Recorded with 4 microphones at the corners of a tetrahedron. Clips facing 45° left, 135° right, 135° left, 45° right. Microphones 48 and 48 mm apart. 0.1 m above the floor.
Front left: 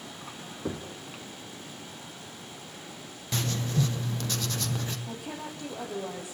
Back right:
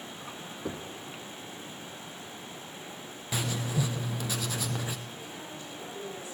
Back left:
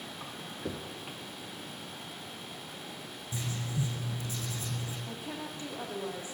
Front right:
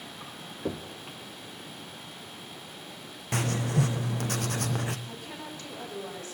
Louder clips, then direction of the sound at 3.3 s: Front left 2 dB, front right 9 dB; 55° right.